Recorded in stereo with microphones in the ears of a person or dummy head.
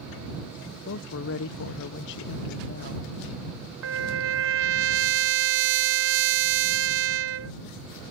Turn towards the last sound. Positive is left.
turn(degrees=-70)  # may be behind; listen again after turning